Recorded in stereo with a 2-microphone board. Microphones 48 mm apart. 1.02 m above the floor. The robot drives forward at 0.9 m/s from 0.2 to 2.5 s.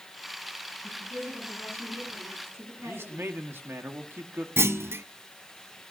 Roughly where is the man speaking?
Right.